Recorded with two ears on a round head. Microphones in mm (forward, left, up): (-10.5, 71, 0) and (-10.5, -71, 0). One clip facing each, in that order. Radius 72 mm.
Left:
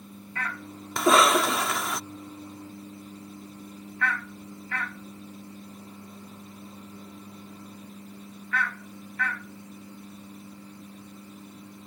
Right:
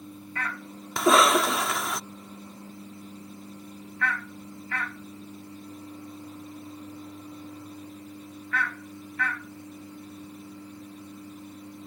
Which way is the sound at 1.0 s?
5° right (ahead or behind).